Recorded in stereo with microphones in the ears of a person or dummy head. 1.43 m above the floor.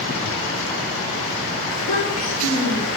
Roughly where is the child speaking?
Left.